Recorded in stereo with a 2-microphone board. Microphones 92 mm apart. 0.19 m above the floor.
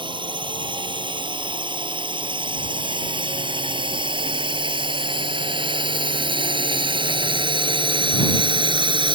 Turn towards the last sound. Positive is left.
turn(degrees=-60)  # may be behind; listen again after turning